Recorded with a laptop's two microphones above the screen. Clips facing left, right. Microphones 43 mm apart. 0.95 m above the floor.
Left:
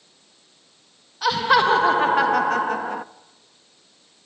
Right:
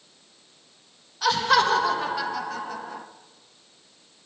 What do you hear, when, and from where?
1.2 s laughter: 5° left (ahead or behind), 1.5 m; by 3.0 s 45° left (ahead or behind), 1.5 m